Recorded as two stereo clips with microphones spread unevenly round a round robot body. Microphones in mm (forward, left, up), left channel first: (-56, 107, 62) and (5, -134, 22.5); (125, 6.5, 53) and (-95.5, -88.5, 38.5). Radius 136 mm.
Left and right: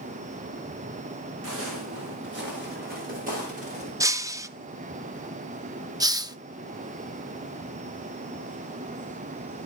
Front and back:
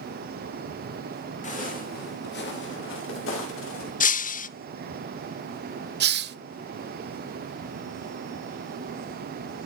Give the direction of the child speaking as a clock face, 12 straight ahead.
No child speaking in this recording.